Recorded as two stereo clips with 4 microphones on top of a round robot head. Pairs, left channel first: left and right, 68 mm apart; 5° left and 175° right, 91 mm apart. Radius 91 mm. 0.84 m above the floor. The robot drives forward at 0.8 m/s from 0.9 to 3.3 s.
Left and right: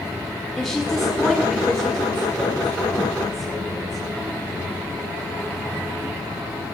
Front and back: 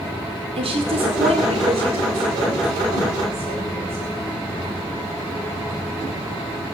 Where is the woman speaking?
175° left, 2.5 m.